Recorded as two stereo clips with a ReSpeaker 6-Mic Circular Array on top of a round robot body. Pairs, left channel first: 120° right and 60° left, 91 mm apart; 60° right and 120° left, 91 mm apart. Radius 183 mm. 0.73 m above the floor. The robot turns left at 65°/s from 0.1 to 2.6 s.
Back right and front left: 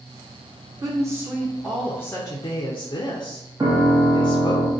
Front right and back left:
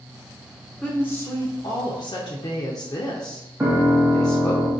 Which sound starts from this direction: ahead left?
A piano, at 3.6 s.